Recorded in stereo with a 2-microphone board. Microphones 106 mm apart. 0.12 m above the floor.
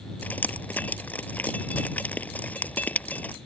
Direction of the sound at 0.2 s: 15° left (ahead or behind).